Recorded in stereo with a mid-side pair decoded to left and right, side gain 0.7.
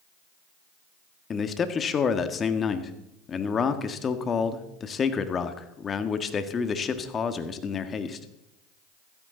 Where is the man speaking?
30° left, 1.6 m.